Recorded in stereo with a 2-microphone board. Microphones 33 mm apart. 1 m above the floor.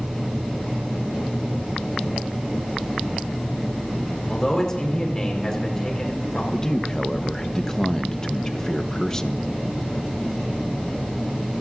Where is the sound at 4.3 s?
25° left (ahead or behind), 4.5 m.